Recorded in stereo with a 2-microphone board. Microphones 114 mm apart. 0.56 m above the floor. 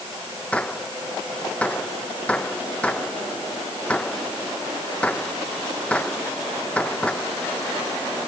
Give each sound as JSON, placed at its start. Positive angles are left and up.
{"t": 0.5, "sound": "a gunshot", "side_deg": 10}